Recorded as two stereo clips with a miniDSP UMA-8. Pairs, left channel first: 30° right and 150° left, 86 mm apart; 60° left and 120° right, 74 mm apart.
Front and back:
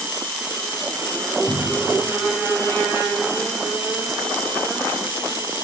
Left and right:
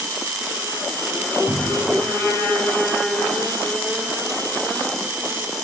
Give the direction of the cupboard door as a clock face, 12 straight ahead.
2 o'clock.